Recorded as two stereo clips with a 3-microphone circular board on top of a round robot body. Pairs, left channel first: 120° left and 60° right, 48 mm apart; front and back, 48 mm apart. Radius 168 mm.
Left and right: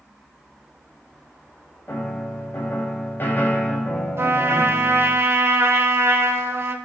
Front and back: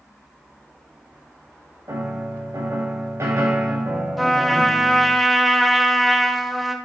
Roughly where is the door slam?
No door slam in this recording.